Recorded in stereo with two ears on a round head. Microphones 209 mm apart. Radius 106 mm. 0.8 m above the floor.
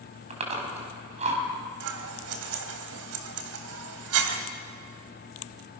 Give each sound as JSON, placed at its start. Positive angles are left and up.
{"t": 0.3, "sound": "chewing", "side_deg": -30, "distance_m": 5.0}
{"t": 1.8, "sound": "scissors", "side_deg": -75, "distance_m": 2.5}